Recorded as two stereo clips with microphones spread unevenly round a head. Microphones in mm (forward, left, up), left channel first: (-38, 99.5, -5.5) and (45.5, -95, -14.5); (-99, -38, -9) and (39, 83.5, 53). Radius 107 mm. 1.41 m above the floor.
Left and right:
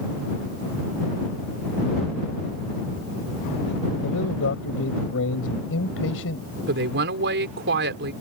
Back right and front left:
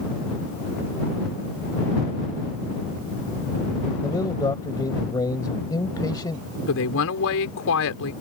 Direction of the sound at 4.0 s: 145° left.